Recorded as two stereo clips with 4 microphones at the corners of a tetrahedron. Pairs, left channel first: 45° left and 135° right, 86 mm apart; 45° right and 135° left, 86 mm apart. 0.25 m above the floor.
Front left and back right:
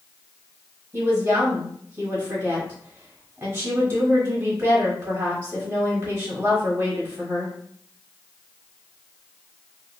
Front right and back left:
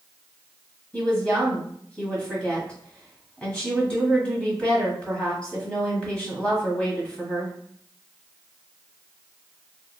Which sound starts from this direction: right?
A woman speaking, at 0.9 s.